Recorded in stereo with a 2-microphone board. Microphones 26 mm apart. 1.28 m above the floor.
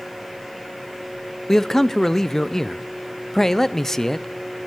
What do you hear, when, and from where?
1.5 s a man speaking: 15° left (ahead or behind), 0.6 m